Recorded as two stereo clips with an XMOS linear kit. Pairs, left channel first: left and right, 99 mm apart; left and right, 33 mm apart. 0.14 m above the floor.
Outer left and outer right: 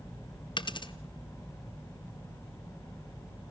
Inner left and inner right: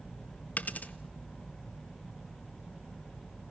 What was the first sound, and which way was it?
A dropped coin, 55° left (ahead or behind).